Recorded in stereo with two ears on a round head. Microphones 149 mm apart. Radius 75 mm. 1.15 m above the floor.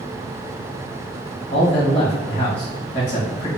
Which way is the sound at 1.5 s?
25° left (ahead or behind).